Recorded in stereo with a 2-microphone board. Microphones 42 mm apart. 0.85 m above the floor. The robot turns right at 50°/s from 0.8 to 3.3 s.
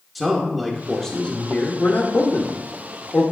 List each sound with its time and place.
0.1 s a man speaking: 5° right, 1.0 m; by 3.2 s 115° left, 1.0 m